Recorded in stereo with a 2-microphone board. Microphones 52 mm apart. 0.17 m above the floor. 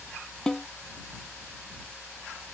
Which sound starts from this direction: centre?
A snare drum, at 0.5 s.